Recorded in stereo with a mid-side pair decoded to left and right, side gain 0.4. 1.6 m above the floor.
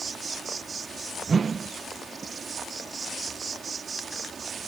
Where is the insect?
45° right.